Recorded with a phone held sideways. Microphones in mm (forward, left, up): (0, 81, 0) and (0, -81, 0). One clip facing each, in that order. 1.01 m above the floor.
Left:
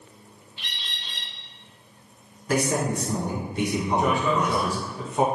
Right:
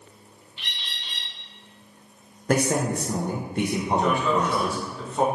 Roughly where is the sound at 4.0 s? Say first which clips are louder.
Even; centre.